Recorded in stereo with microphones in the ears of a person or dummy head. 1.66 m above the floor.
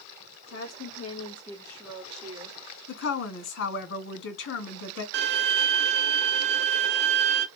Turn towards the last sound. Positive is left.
turn(degrees=-55)  # may be behind; listen again after turning